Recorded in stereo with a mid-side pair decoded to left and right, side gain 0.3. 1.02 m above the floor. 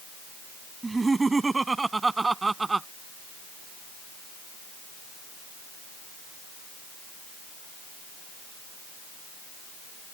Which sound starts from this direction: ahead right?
Laughter, at 0.8 s.